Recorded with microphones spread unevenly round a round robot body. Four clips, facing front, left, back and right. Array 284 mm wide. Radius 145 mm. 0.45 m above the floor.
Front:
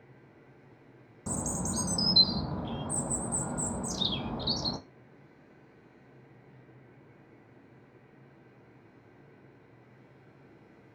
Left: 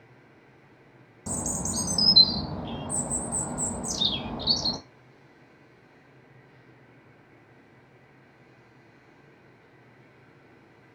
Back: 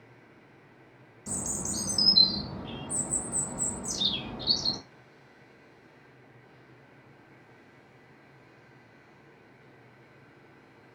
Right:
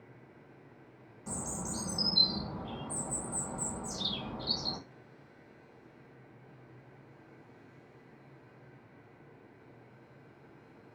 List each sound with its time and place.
1.3 s a bird: 50° left, 0.6 m